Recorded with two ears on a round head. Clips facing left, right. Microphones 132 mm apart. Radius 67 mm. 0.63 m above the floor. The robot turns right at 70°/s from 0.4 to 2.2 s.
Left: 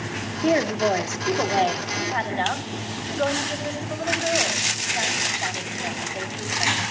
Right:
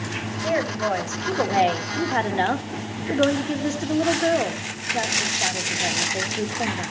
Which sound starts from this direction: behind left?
A woman speaking, at 0.4 s.